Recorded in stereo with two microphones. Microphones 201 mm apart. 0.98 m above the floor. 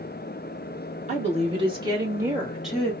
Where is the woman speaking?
35° right (ahead or behind), 2.5 m; by 2.9 s 5° left (ahead or behind), 1.8 m.